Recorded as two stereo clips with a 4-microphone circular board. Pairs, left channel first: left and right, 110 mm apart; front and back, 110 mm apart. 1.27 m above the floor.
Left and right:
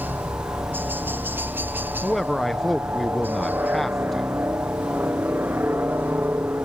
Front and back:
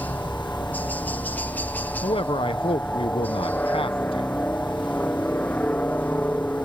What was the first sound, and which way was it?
A helicopter, 50° right.